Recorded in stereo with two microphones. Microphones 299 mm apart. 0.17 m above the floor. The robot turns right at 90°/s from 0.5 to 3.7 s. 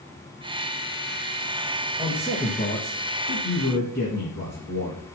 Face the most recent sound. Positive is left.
turn(degrees=140)